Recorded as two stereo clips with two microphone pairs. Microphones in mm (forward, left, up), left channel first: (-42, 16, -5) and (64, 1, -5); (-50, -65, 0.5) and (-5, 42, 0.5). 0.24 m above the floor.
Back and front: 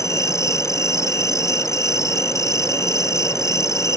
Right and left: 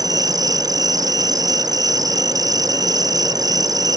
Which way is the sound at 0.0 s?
115° left.